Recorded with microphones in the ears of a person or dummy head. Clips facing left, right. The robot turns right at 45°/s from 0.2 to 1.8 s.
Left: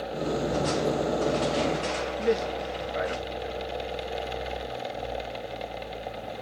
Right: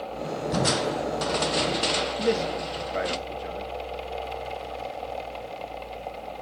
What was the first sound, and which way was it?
Crushing, 105° right.